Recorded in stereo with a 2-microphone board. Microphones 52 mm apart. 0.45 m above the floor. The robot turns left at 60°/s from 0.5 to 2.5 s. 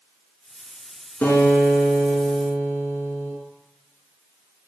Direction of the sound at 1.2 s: 135° left.